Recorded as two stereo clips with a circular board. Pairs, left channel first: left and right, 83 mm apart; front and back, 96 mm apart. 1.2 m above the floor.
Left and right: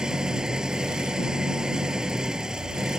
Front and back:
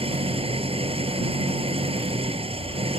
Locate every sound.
0.0 s an engine running: 170° right